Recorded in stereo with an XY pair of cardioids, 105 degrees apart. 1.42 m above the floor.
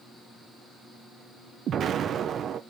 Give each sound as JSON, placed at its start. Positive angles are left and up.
{"t": 1.7, "sound": "an explosion", "azimuth_deg": -60, "distance_m": 1.0}